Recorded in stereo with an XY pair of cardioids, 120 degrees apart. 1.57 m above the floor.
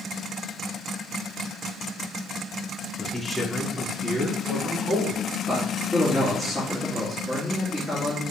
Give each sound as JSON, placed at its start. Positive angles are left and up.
{"t": 3.0, "sound": "a man speaking", "azimuth_deg": 15, "distance_m": 0.9}
{"t": 5.5, "sound": "a man speaking", "azimuth_deg": 5, "distance_m": 2.5}